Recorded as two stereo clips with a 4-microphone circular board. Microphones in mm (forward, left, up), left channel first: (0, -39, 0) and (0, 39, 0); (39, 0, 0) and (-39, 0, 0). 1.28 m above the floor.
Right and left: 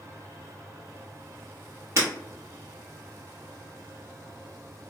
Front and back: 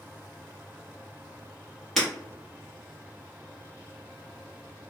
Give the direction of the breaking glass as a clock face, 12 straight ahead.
9 o'clock.